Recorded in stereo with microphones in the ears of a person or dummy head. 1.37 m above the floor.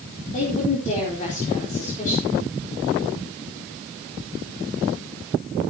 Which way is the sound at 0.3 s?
40° left (ahead or behind).